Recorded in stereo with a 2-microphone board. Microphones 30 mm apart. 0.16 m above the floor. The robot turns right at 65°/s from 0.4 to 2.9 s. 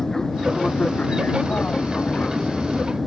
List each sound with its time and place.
0.0 s an aircraft: 15° left (ahead or behind); by 3.1 s 5° right (ahead or behind)